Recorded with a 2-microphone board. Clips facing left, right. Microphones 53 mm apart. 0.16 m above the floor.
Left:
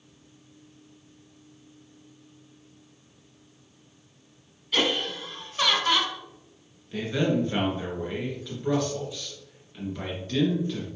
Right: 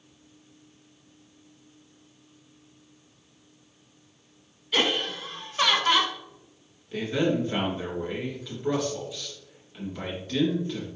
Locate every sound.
4.7 s laughter: 10° right (ahead or behind), 1.2 m
6.9 s a man speaking: 5° right (ahead or behind), 2.5 m